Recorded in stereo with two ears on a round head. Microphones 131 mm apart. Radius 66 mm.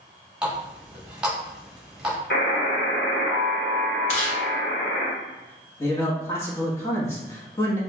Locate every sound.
0.4 s a running tap: 5° right (ahead or behind), 1.5 m
2.3 s a buzzer: 85° left, 1.7 m
4.1 s chewing: 45° left (ahead or behind), 1.5 m
5.8 s a man speaking: 20° left (ahead or behind), 1.2 m